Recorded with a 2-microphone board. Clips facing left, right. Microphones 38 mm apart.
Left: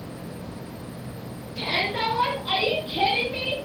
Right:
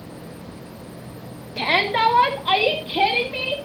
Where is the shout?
60° right (ahead or behind), 1.9 m; by 3.6 s 15° right (ahead or behind), 1.7 m.